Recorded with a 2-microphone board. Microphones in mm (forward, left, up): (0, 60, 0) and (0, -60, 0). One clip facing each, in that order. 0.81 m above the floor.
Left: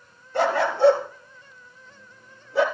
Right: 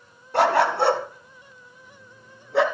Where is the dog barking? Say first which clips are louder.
Right 3 dB; 80° right, 2.5 m; by 2.6 s 75° right (ahead or behind), 3 m.